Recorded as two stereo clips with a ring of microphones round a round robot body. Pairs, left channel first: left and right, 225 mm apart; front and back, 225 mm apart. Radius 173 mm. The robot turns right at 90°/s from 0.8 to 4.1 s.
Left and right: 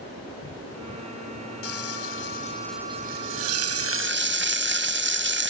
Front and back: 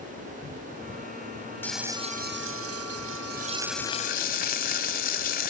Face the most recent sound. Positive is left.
turn(degrees=-55)